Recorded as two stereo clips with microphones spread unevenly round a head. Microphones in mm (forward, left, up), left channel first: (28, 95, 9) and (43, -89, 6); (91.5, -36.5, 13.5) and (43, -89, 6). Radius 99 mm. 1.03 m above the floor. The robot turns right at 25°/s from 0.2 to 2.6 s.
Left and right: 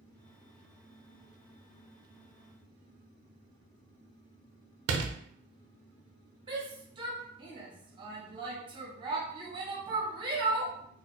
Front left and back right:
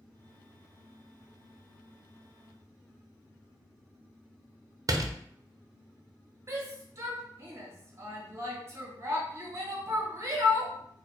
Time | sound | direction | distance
4.9 | a door slam | 90° right | 0.5 m
6.5 | a shout | 140° right | 0.9 m